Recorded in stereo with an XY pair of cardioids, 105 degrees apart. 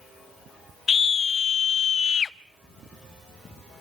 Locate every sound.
0.9 s a scream: 45° left, 0.9 m